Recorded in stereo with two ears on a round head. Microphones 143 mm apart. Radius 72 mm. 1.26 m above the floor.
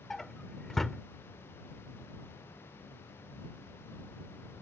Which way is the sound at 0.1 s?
5° left (ahead or behind).